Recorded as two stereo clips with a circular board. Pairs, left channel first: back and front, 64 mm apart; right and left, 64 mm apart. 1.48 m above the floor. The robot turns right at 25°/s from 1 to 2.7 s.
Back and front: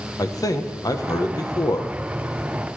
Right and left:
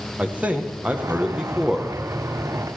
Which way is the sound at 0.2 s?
160° left.